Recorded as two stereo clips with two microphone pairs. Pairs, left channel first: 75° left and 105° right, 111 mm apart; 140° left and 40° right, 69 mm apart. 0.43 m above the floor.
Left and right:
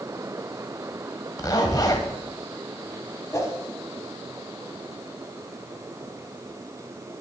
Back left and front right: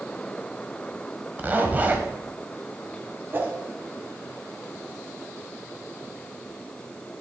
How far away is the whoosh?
About 1.2 m.